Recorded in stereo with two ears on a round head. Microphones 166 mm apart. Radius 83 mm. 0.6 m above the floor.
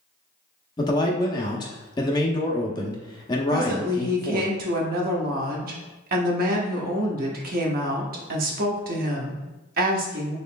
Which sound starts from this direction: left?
A man speaking, at 0.8 s.